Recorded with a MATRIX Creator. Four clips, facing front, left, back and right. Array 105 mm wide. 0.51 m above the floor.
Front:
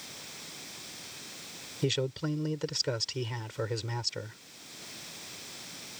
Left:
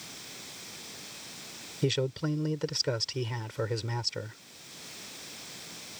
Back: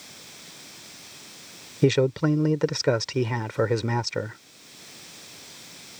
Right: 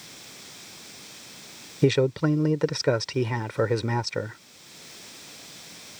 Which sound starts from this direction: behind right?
A man speaking, at 1.8 s.